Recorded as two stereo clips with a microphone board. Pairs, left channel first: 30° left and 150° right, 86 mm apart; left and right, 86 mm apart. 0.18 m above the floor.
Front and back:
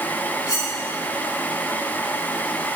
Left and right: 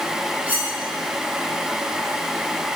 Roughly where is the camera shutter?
I don't hear a camera shutter.